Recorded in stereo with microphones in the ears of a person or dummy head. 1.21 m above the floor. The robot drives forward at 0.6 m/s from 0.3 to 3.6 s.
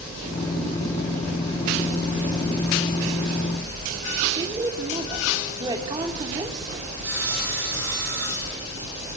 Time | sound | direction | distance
4.4 | a woman speaking | 20° right (ahead or behind) | 3.5 m
7.0 | sawing | 5° right (ahead or behind) | 10 m